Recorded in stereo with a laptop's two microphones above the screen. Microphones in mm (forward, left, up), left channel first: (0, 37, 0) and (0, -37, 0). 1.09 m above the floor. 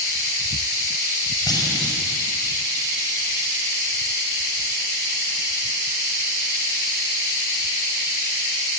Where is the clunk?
60° left (ahead or behind), 5.5 m.